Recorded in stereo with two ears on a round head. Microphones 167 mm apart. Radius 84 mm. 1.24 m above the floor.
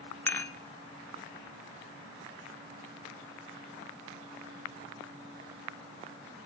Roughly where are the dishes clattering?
Centre.